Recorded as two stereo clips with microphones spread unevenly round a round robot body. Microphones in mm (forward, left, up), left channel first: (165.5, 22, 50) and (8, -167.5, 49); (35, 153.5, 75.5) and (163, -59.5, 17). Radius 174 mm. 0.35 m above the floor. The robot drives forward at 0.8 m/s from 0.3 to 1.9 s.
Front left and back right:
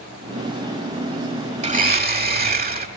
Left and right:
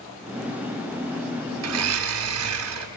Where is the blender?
65° right, 1.3 m; by 2.9 s 75° right, 1.2 m.